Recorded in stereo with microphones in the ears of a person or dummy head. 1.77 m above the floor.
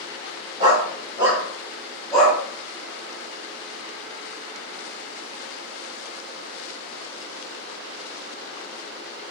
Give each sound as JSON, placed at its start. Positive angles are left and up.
{"t": 0.6, "sound": "a dog barking", "side_deg": -20, "distance_m": 3.0}